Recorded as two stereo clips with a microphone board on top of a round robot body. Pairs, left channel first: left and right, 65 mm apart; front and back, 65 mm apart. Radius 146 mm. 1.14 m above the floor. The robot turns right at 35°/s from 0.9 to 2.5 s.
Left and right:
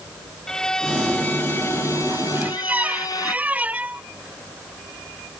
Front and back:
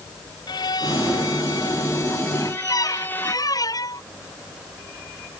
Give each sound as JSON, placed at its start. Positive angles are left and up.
{"t": 0.5, "sound": "a violin", "azimuth_deg": 10}
{"t": 2.4, "sound": "a squeak", "azimuth_deg": -25}